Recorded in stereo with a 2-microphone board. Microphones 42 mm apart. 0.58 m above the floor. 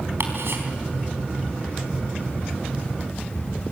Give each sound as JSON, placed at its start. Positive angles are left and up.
{"t": 0.2, "sound": "ticking", "side_deg": -70, "distance_m": 4.0}